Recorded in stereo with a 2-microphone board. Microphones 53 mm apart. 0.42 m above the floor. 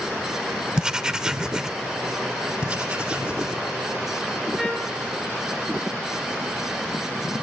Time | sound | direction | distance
0.8 | writing | 15° right (ahead or behind) | 0.7 m
2.6 | writing | 30° right (ahead or behind) | 3 m
4.6 | a trumpet | 5° left (ahead or behind) | 6 m